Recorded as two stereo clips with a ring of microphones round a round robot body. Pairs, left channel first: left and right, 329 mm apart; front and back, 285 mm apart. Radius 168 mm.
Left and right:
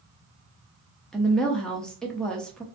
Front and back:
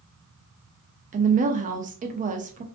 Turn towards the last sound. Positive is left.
turn(degrees=175)